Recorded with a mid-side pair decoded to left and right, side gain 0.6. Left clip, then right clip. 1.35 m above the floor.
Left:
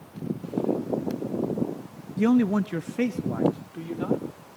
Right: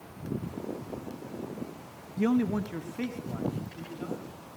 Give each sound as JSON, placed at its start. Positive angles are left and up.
{"t": 2.2, "sound": "a man speaking", "azimuth_deg": 25, "distance_m": 0.8}